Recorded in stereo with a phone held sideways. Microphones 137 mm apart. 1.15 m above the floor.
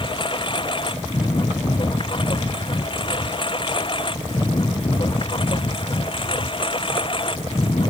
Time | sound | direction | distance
0.0 | a lawn mower | 40° left (ahead or behind) | ?